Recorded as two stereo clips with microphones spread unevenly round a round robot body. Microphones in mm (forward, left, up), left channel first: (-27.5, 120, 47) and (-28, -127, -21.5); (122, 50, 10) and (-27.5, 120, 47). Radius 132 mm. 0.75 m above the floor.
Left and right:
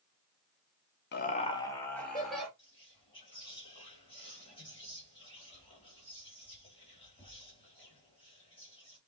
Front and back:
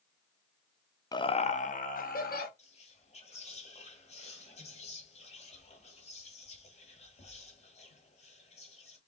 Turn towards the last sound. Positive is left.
turn(degrees=15)